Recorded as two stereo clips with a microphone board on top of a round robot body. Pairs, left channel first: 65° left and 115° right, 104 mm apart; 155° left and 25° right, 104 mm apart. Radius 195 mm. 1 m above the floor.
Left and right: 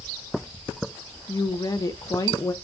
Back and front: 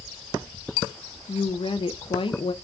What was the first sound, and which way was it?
A woman speaking, 125° left.